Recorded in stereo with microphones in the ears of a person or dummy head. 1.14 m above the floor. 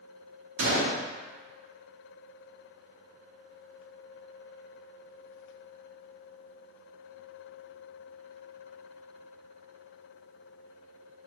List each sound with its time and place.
0.6 s a gunshot: 60° right (ahead or behind), 0.9 m